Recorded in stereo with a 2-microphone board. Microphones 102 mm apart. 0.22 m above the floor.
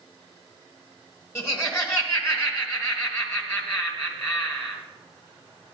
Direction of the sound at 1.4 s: 25° left (ahead or behind).